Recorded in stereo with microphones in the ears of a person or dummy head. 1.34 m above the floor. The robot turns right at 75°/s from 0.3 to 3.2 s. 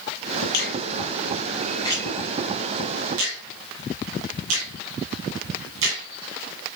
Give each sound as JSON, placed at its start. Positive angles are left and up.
{"t": 0.5, "sound": "a finger snap", "side_deg": 60, "distance_m": 10.0}